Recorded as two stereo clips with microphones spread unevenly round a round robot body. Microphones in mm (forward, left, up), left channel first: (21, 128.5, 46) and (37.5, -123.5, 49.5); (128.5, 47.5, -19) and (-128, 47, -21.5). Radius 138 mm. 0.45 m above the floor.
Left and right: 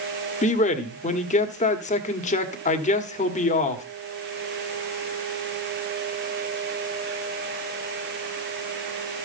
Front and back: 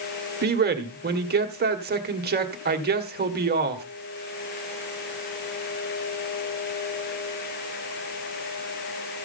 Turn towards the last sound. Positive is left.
turn(degrees=145)